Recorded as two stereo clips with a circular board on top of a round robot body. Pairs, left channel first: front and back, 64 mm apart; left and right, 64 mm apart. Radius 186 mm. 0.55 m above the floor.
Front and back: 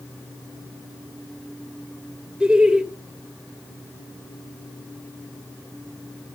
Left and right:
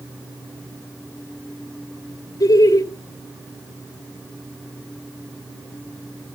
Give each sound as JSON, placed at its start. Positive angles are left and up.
{"t": 2.4, "sound": "laughter", "azimuth_deg": 100, "distance_m": 2.0}